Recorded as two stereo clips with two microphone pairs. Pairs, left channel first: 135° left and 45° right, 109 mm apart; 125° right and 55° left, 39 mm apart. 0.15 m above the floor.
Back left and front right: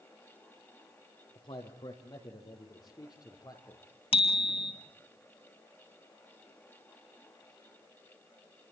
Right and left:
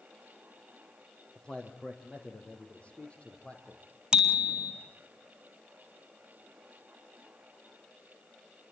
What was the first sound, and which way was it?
A man speaking, 170° left.